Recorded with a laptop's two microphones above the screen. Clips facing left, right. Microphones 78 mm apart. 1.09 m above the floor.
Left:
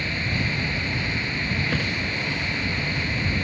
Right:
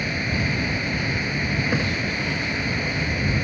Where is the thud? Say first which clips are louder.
Right 3 dB; 15° right (ahead or behind).